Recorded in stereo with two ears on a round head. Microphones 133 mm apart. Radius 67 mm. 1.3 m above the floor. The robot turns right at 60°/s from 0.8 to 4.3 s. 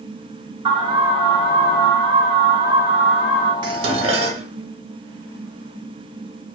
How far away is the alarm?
About 2 m.